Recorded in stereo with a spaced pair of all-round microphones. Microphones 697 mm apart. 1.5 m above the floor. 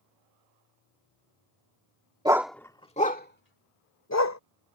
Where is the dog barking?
5° right (ahead or behind); by 4.4 s 25° left (ahead or behind).